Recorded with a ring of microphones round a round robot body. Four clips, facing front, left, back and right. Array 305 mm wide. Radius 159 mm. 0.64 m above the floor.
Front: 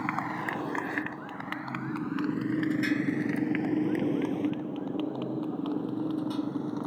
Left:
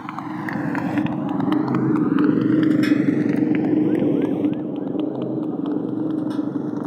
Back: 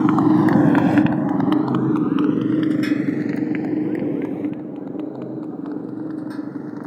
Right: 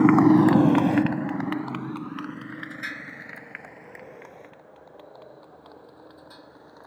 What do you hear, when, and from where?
0.0 s a motorcycle: 135° right; by 6.9 s 105° left